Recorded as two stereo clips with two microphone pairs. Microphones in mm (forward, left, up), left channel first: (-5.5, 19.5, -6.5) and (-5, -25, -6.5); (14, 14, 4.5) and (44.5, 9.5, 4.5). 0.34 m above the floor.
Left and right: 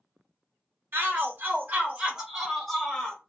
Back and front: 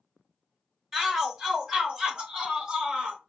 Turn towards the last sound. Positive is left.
turn(degrees=30)